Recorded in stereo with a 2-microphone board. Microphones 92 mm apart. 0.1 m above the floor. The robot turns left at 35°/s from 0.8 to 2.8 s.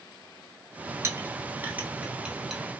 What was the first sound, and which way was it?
A clink, 30° right (ahead or behind).